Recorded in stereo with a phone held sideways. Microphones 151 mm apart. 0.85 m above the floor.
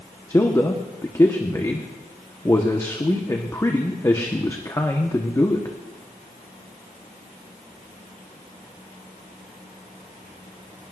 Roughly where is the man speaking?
Left.